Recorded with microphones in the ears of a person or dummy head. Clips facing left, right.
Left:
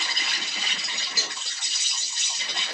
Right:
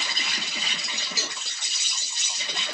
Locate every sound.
0.0 s an insect: 80° right, 0.9 m
1.2 s a cowbell: 20° right (ahead or behind), 0.9 m